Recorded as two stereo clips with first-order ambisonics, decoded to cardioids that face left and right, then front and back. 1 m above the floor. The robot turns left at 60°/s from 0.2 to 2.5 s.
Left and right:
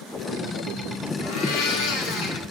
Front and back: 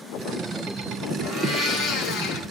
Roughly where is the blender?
Left.